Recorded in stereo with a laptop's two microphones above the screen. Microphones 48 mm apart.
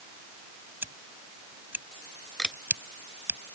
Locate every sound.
0.8 s scissors: 40° right (ahead or behind)
2.4 s a camera shutter: 10° left (ahead or behind)